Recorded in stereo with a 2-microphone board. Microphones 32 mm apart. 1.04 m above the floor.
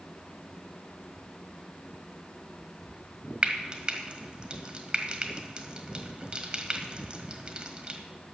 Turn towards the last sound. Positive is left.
turn(degrees=-35)  # may be behind; listen again after turning